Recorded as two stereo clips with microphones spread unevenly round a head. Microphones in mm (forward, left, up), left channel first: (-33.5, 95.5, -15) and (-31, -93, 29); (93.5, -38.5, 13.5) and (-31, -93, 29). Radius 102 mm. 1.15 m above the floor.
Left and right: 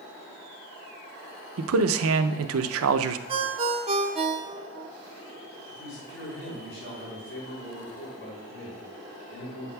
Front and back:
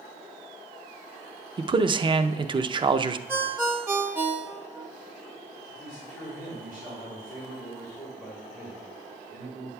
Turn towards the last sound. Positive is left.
turn(degrees=110)